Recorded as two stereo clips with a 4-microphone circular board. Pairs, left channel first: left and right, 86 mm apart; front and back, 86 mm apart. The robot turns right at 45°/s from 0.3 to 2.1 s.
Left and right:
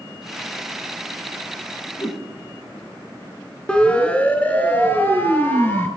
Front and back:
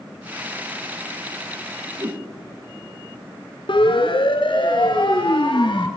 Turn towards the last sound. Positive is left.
turn(degrees=30)